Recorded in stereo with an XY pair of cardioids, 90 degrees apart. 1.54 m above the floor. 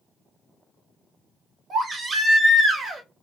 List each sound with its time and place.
1.7 s a baby crying: 50° right, 1.0 m